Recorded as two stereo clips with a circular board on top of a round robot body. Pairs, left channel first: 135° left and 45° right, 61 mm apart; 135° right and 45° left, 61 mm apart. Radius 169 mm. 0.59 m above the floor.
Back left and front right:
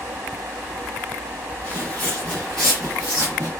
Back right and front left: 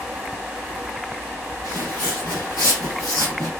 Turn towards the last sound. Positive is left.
turn(degrees=-75)